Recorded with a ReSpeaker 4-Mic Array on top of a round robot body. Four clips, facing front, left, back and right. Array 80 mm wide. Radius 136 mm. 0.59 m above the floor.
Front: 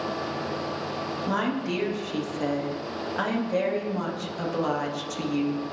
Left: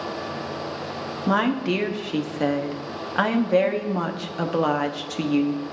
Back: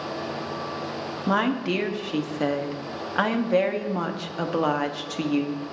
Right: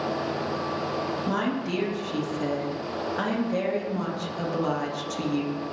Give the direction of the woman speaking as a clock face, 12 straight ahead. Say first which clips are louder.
Left 9 dB, back 5 dB; 8 o'clock.